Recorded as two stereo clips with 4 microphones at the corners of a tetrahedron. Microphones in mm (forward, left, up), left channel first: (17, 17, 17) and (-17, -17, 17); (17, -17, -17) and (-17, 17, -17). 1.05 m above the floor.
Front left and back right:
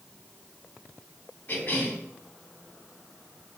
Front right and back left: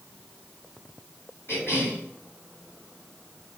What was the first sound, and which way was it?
A cough, 10° right.